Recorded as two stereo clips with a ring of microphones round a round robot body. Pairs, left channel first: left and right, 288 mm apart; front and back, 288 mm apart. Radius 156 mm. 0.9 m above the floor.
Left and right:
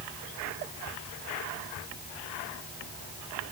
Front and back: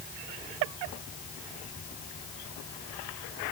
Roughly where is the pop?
I don't hear a pop.